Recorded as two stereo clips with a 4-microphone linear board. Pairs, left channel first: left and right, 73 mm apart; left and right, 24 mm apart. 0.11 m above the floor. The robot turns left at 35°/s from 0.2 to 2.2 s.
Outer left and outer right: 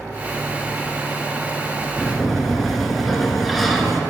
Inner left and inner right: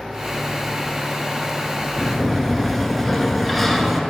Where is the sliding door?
5° left (ahead or behind), 0.7 m; by 4.0 s centre (ahead or behind), 0.7 m.